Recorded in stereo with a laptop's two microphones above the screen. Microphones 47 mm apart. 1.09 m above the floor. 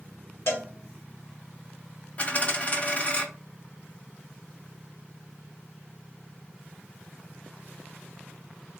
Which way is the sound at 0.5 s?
65° left (ahead or behind).